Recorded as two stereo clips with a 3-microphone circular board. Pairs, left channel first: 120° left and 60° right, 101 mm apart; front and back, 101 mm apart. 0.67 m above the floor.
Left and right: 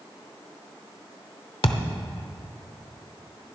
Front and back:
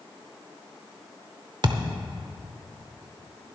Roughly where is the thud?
Behind left.